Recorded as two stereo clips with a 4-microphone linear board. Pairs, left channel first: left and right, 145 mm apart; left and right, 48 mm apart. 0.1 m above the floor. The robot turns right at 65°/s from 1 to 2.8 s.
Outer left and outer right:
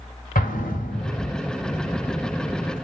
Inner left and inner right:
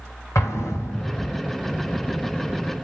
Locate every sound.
0.3 s an explosion: 75° left (ahead or behind), 1.7 m; by 1.3 s 55° left (ahead or behind), 1.7 m